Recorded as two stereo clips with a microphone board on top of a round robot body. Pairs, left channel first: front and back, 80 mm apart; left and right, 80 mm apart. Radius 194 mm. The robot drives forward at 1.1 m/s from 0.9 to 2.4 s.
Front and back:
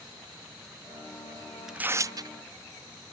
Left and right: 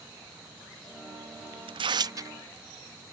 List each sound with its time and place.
1.7 s tearing paper: 95° right; by 2.3 s 145° right